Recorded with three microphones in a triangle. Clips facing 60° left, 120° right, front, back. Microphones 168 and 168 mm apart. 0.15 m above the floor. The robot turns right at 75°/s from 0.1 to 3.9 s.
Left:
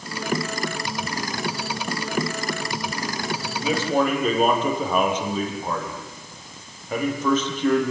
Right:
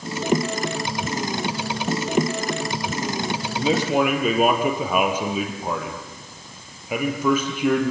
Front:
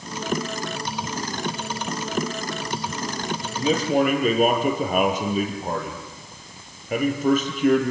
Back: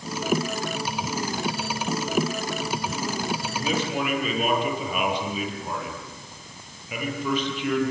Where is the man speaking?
65° right, 5 m; by 7.9 s 40° right, 5 m.